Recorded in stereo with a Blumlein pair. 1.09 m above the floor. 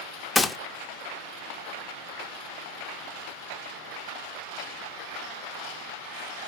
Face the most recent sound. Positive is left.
turn(degrees=10)